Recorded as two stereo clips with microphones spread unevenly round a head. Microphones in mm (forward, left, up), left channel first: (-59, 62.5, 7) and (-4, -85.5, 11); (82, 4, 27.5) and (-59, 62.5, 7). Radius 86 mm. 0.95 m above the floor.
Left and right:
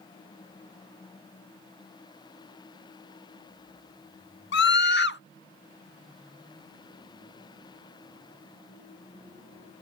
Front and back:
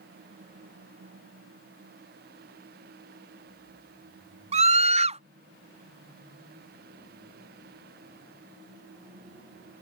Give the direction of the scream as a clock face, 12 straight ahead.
8 o'clock.